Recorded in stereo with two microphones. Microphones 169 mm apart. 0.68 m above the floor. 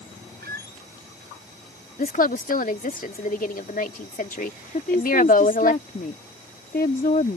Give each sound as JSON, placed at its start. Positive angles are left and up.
{"t": 0.4, "sound": "a squeak", "side_deg": -80}
{"t": 2.0, "sound": "a woman speaking", "side_deg": 55}
{"t": 4.7, "sound": "a woman speaking", "side_deg": 55}